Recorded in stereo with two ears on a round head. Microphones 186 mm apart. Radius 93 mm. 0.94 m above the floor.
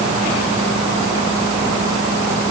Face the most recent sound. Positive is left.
No sound to turn to.